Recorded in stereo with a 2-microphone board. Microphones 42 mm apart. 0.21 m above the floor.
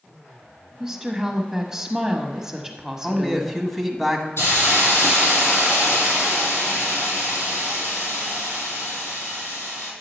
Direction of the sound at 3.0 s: Centre (ahead or behind).